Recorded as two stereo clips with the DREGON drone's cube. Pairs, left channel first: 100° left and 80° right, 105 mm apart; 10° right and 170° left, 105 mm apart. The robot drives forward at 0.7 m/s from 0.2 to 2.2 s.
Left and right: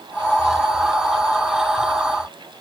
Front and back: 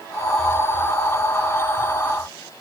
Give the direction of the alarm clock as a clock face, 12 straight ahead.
No alarm clock in this recording.